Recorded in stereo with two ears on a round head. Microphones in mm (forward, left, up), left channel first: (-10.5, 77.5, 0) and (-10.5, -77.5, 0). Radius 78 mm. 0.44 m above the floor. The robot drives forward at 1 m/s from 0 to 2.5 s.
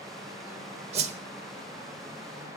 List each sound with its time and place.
0.9 s a whoosh: 35° right (ahead or behind), 1.1 m; by 1.2 s 40° right (ahead or behind), 0.9 m